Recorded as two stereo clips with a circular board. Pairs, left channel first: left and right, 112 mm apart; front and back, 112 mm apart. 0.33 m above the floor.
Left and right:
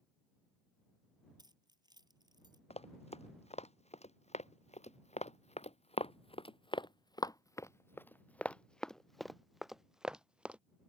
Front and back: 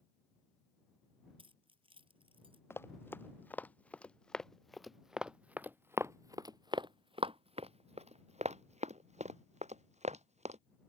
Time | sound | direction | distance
1.4 | keys jangling | 140° right | ?
2.7 | running footsteps | 70° left | ?